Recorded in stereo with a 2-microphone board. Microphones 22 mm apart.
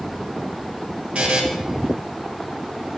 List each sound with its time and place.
1.1 s a buzzer: 55° right (ahead or behind), 1.4 m